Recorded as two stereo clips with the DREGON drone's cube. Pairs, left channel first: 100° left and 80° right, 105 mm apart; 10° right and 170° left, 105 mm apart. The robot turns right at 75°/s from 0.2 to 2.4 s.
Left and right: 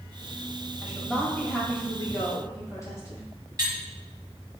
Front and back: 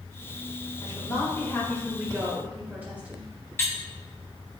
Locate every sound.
0.8 s a woman speaking: 5° right, 1.4 m; by 3.3 s 115° left, 1.4 m
3.6 s cutlery clinking: 65° right, 0.7 m